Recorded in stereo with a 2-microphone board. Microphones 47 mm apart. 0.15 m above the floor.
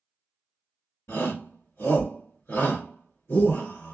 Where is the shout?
50° left (ahead or behind), 1.8 m.